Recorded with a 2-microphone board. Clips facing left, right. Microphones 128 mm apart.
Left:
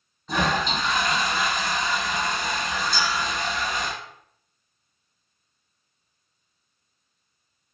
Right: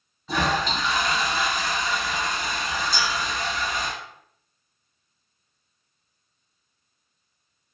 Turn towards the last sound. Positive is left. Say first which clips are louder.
# left 2 dB
turn(degrees=-80)